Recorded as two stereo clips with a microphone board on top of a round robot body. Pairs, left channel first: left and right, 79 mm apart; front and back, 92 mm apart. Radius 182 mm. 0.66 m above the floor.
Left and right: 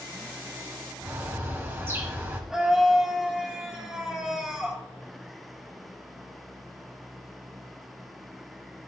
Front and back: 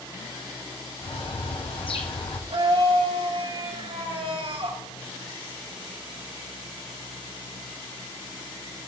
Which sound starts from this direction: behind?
A scream, at 2.5 s.